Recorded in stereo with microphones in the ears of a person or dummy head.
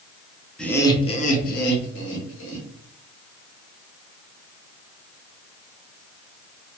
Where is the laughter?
5° left (ahead or behind), 0.5 m; by 2.7 s 70° left (ahead or behind), 1.2 m.